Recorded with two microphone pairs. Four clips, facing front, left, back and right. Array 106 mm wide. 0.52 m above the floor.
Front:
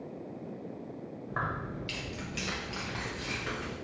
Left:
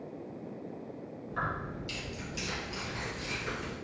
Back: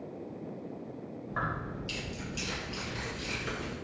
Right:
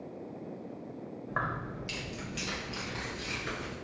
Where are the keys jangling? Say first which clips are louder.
Right 1 dB, even; 75° right, 1.4 m; by 3.7 s 10° left, 3 m.